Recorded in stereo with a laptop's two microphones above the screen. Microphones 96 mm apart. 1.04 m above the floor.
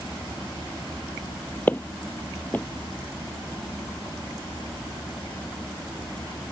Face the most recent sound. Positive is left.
turn(degrees=20)  # may be behind; listen again after turning